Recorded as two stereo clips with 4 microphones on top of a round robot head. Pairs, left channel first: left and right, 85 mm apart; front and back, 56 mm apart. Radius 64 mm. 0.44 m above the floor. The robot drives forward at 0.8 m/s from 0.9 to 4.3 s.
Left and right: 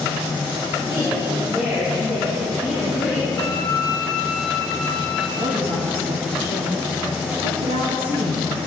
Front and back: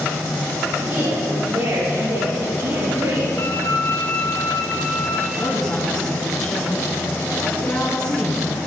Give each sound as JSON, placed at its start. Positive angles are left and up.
{"t": 0.9, "sound": "a woman speaking", "azimuth_deg": -175, "distance_m": 6.5}
{"t": 3.4, "sound": "a violin", "azimuth_deg": 35, "distance_m": 2.5}
{"t": 5.4, "sound": "a woman speaking", "azimuth_deg": -80, "distance_m": 5.5}